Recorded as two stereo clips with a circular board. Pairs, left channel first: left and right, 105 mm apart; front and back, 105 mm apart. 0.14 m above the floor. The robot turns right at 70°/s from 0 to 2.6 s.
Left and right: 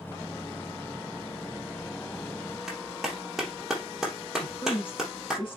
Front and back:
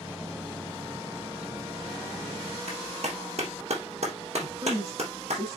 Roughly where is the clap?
Behind.